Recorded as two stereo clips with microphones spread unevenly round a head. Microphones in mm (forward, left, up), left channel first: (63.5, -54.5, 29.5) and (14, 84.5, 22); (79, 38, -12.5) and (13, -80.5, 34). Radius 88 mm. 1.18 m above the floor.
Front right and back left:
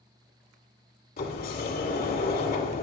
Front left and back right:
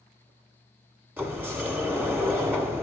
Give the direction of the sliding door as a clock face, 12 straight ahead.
2 o'clock.